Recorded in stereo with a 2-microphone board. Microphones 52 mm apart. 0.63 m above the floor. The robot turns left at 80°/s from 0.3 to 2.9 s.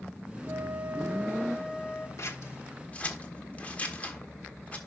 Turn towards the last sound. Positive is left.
turn(degrees=25)  # may be behind; listen again after turning